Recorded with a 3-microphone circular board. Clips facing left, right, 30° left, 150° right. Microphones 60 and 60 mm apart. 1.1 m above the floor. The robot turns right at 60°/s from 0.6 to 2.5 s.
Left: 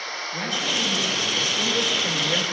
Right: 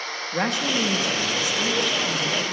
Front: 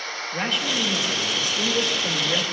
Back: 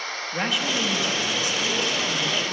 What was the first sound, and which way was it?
A man speaking, 65° right.